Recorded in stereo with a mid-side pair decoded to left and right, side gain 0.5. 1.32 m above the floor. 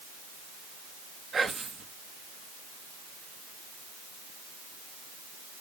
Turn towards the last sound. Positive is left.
turn(degrees=-35)